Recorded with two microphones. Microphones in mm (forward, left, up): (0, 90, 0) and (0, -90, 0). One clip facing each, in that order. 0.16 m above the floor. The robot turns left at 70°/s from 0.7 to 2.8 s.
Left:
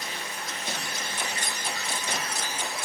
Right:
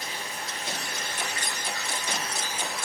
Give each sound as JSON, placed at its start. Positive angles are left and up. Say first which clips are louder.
{"t": 0.0, "sound": "running water", "louder": "even", "azimuth_deg": -40, "distance_m": 1.4}